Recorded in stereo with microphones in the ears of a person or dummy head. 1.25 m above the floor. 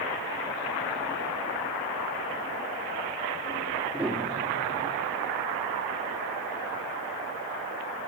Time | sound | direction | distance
3.9 | a piano | 10° right (ahead or behind) | 2.5 m